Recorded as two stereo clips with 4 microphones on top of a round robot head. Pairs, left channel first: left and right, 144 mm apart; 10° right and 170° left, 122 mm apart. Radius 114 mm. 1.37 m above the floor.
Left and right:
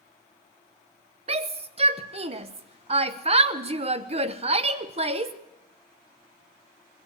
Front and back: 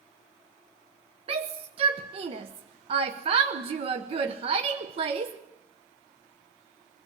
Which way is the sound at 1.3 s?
140° right.